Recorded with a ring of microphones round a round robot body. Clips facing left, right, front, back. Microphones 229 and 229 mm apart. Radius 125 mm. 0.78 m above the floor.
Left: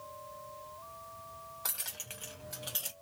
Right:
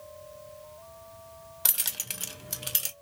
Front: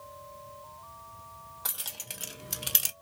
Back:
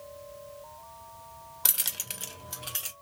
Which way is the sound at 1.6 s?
135° right.